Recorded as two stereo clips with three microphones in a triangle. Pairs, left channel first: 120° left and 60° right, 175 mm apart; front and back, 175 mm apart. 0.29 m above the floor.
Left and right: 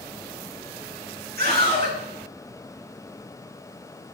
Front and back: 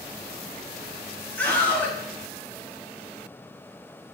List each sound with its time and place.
1.4 s a scream: 80° right, 5 m